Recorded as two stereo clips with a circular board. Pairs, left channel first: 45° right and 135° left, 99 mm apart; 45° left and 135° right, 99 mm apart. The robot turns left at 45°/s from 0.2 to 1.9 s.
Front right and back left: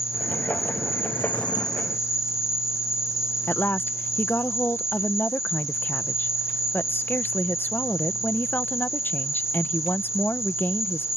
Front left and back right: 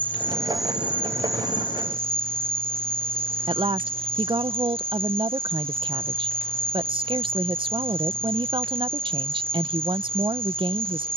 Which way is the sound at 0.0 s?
30° right.